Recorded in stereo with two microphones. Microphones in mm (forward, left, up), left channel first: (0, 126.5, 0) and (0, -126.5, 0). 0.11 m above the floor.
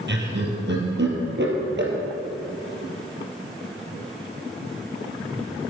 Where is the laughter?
50° right (ahead or behind), 3 m.